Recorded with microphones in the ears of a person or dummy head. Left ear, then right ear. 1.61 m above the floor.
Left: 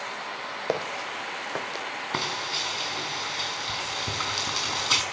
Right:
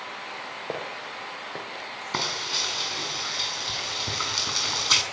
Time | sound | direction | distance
0.7 | footsteps | 55° left (ahead or behind) | 3 m
2.1 | frying | 15° right (ahead or behind) | 5 m